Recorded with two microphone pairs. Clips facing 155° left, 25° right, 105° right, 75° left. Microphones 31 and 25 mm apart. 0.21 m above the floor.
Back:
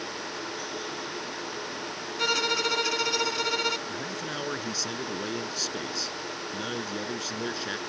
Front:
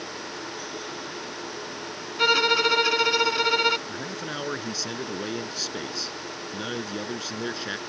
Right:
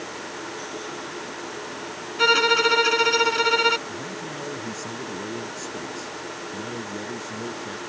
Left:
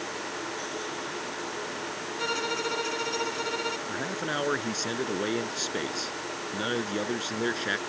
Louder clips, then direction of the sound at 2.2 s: Front 6 dB, right 13 dB; 80° right.